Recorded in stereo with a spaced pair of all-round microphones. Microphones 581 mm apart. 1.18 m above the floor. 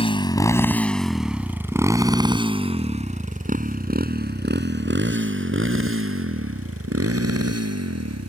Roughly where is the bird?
No bird in this recording.